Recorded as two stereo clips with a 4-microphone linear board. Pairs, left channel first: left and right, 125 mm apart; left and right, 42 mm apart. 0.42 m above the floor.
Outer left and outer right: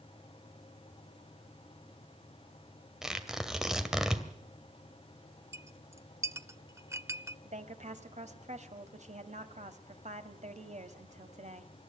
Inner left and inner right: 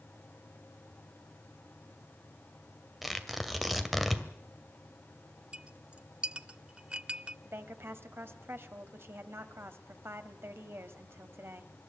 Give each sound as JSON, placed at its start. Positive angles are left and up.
{"t": 3.0, "sound": "tearing paper", "side_deg": -5, "distance_m": 2.0}
{"t": 5.5, "sound": "a clink", "side_deg": -20, "distance_m": 0.6}
{"t": 7.5, "sound": "a woman speaking", "side_deg": -65, "distance_m": 2.0}